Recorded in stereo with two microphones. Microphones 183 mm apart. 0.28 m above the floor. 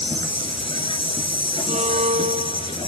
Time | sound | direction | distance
0.0 | an insect | 30° left (ahead or behind) | 1.1 m
1.7 | a violin | 40° right (ahead or behind) | 0.6 m